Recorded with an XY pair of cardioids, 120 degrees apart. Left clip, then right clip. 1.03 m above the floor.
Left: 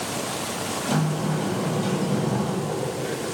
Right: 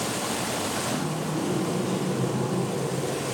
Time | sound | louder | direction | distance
0.9 | a sliding door | left 3 dB | 65° left | 6 m